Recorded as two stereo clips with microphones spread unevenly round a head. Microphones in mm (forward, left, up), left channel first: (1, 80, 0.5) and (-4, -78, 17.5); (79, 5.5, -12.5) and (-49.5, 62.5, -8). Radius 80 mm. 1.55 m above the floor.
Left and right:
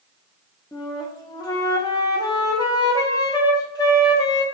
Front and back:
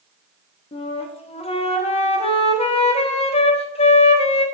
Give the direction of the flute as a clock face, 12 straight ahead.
11 o'clock.